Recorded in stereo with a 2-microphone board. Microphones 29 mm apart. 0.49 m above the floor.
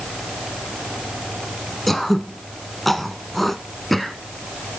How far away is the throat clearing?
About 1.1 m.